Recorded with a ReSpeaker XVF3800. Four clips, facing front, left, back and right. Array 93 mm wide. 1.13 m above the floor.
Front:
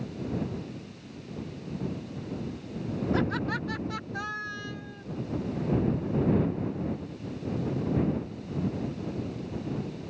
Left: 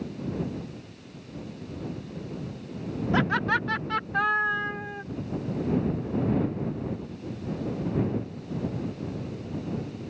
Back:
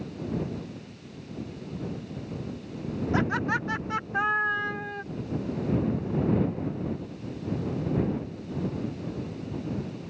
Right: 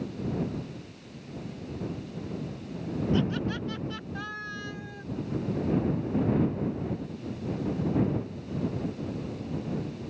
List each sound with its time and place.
3.1 s laughter: 105° left; by 5.0 s 155° left